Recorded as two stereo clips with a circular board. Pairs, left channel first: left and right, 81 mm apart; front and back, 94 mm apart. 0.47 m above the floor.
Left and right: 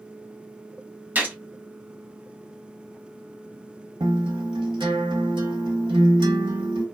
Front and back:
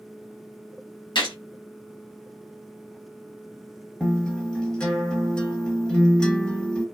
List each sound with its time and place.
1.1 s a gunshot: 25° right, 1.2 m
4.0 s a guitar: 80° right, 1.0 m